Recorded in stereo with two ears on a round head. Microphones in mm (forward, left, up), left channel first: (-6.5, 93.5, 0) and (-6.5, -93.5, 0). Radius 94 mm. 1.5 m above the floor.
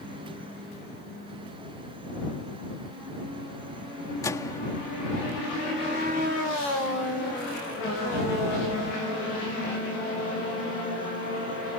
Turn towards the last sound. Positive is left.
turn(degrees=15)  # may be behind; listen again after turning